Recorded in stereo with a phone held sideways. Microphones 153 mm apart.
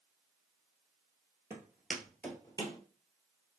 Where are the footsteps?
20° right (ahead or behind), 1.6 m; by 2.8 s 30° left (ahead or behind), 1.5 m.